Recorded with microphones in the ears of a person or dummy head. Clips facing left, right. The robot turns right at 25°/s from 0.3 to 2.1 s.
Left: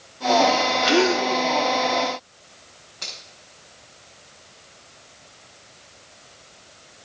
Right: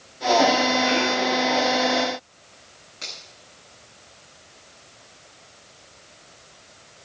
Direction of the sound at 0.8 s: 60° left (ahead or behind).